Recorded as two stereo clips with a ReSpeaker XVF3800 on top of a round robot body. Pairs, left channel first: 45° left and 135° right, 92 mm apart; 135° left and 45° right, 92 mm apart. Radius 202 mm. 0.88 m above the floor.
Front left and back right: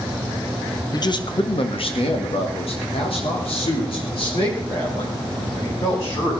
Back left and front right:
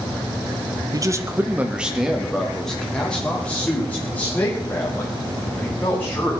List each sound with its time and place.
0.9 s a man speaking: straight ahead, 1.3 m; by 6.3 s 70° left, 6.5 m